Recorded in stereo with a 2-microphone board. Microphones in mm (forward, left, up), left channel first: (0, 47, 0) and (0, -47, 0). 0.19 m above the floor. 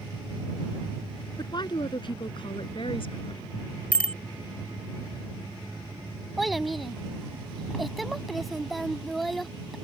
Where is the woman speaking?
50° left (ahead or behind); by 3.4 s 65° left (ahead or behind).